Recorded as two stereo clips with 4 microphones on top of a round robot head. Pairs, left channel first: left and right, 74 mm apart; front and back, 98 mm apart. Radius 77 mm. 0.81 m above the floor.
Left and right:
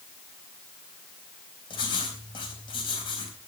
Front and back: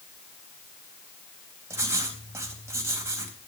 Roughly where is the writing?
Behind left.